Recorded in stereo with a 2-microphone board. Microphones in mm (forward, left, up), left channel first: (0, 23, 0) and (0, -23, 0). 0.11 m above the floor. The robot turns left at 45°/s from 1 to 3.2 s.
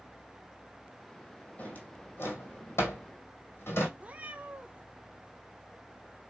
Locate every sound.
1.6 s a drawer: 35° left (ahead or behind), 1.9 m; by 3.9 s 65° left (ahead or behind), 1.9 m
4.0 s a cat meowing: 30° right (ahead or behind), 0.7 m